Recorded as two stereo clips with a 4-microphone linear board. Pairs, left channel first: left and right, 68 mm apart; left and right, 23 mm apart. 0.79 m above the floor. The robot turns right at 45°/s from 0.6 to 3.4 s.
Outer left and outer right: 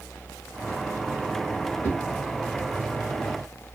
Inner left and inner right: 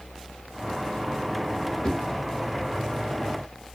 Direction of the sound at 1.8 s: 30° left (ahead or behind).